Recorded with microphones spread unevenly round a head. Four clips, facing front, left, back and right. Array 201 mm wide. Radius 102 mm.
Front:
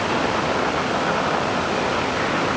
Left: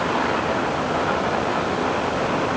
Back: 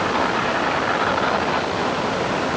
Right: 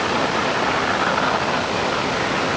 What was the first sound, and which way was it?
Only background noise.